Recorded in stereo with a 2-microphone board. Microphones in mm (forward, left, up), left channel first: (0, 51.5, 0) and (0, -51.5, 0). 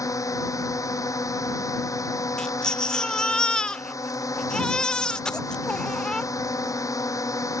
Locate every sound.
0.0 s a drone: 30° left (ahead or behind)
2.4 s a baby crying: 10° left (ahead or behind)